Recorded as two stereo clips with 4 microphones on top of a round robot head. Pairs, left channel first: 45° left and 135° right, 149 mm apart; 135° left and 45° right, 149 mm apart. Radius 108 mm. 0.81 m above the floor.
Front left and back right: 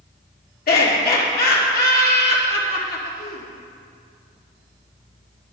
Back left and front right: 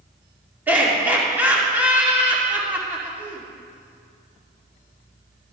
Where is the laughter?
35° left, 2 m.